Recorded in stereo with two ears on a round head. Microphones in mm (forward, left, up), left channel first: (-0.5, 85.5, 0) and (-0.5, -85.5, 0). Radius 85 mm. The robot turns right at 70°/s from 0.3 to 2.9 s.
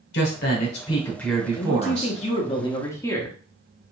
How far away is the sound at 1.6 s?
About 1.0 m.